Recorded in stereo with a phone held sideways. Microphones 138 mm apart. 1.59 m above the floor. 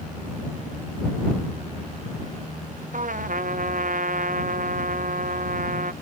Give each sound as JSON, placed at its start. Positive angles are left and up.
{"t": 2.9, "sound": "a trumpet", "side_deg": -70}